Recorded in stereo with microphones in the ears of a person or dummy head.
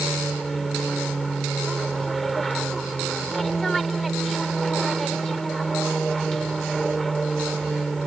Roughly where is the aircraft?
Centre.